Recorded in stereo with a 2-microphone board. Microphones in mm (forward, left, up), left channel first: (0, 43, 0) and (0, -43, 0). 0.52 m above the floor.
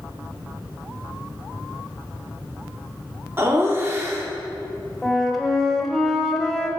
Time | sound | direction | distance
3.4 | laughter | 30° right (ahead or behind) | 0.8 m
5.0 | a flute | centre (ahead or behind) | 0.9 m